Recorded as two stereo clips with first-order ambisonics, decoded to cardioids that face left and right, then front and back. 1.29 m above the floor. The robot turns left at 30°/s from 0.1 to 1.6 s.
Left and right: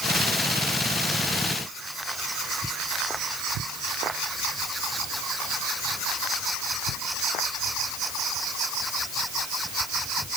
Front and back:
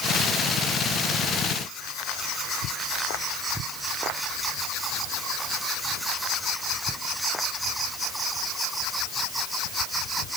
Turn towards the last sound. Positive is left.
No sound to turn to.